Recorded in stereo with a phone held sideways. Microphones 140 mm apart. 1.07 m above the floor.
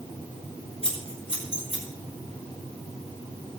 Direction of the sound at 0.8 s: 40° left (ahead or behind).